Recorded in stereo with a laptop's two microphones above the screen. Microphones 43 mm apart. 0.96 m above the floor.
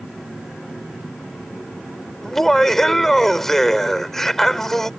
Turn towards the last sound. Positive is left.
turn(degrees=5)  # may be behind; listen again after turning